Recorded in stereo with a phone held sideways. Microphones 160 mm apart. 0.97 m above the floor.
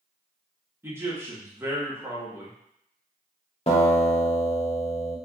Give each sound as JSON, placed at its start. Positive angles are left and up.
{"t": 0.8, "sound": "a man speaking", "side_deg": -15, "distance_m": 1.2}
{"t": 3.7, "sound": "a guitar", "side_deg": 40, "distance_m": 0.9}